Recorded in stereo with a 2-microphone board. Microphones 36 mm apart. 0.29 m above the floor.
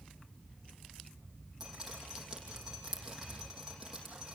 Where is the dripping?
15° right (ahead or behind), 5.5 m.